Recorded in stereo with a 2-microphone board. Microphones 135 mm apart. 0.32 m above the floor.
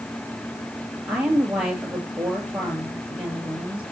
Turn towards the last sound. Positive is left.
turn(degrees=-10)  # may be behind; listen again after turning